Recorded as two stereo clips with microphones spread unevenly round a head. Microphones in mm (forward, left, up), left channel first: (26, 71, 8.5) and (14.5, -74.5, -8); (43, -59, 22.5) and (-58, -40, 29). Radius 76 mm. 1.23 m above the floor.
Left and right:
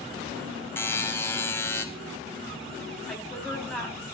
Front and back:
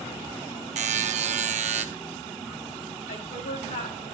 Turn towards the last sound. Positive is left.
turn(degrees=0)